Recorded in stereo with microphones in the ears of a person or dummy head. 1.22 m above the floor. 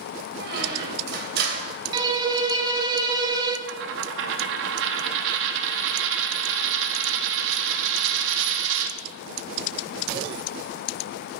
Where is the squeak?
60° right (ahead or behind), 2.5 m.